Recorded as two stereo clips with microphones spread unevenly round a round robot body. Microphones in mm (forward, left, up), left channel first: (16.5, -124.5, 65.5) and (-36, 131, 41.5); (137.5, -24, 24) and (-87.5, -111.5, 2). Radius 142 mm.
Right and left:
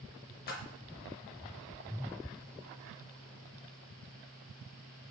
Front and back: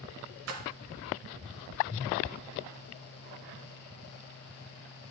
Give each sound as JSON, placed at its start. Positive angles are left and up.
{"t": 0.5, "sound": "a splash", "azimuth_deg": -130, "distance_m": 0.7}